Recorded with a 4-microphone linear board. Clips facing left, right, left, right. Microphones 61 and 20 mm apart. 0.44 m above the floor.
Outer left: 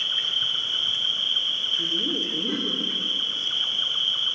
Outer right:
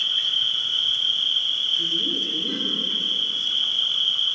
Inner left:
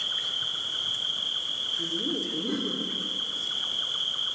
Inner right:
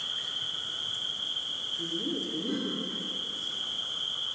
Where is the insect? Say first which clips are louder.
Outer right 2 dB, inner left 4 dB; 30° left (ahead or behind), 0.7 m.